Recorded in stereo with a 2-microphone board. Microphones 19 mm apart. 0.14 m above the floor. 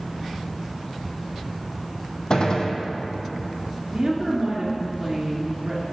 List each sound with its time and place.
2.3 s a gunshot: 45° left (ahead or behind), 0.9 m
3.9 s a woman speaking: 15° right (ahead or behind), 1.6 m